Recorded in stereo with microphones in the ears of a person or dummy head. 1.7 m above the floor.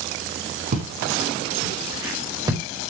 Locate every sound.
0.7 s footsteps: 45° right (ahead or behind), 5 m; by 2.6 s 15° right (ahead or behind), 5.5 m